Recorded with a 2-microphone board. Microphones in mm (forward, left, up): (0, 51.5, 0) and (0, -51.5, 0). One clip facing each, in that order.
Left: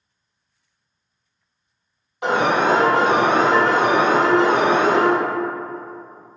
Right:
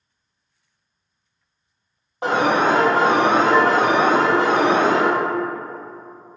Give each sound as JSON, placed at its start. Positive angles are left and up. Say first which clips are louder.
{"t": 2.2, "sound": "an alarm", "louder": "even", "side_deg": -35, "distance_m": 1.6}